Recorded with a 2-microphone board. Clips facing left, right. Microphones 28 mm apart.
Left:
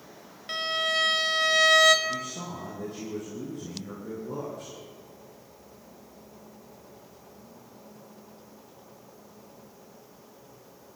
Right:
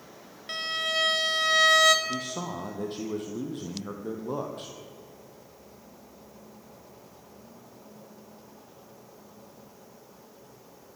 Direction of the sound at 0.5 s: Centre (ahead or behind).